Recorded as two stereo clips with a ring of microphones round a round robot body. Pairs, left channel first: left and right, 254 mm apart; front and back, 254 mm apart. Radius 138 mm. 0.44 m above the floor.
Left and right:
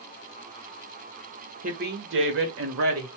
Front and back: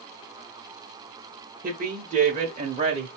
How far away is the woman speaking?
About 1.1 m.